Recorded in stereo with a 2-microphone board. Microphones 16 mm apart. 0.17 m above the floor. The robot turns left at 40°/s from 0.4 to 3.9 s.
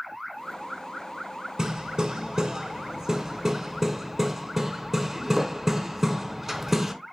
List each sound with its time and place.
1.6 s hammering: 45° right (ahead or behind), 0.7 m; by 6.9 s 10° right (ahead or behind), 0.7 m